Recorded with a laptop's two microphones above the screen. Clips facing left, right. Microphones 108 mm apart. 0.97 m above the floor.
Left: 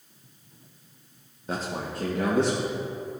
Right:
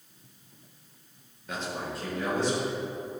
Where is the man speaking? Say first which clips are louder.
Left 3 dB; 30° left (ahead or behind), 0.9 m; by 2.8 s 70° left (ahead or behind), 2 m.